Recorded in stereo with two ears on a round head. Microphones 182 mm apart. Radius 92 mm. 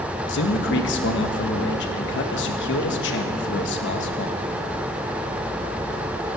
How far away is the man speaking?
About 1.3 m.